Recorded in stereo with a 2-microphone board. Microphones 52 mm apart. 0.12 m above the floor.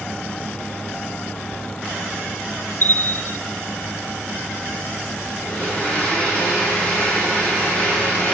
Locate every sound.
2.8 s a bell: 45° left (ahead or behind), 1.1 m
5.4 s a blender: 25° left (ahead or behind), 7.5 m